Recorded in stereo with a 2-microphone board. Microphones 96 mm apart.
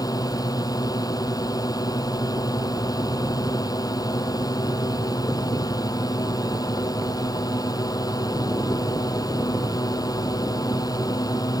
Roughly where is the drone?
Left.